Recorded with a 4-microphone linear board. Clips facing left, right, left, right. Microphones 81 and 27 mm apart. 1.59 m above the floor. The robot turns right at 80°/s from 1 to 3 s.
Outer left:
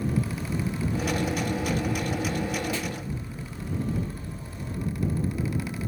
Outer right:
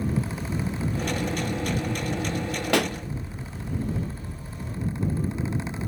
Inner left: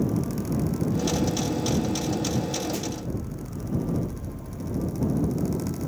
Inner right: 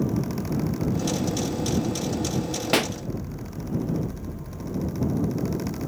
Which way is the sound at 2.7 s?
75° right (ahead or behind).